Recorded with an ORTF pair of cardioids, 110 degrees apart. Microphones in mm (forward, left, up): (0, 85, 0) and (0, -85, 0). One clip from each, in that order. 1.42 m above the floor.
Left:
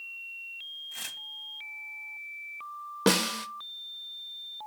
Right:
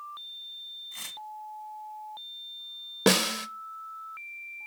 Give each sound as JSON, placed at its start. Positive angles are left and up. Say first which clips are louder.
{"t": 0.9, "sound": "tearing paper", "louder": "left 2 dB", "azimuth_deg": 5, "distance_m": 1.0}
{"t": 3.1, "sound": "a snare drum", "louder": "right 2 dB", "azimuth_deg": -10, "distance_m": 0.6}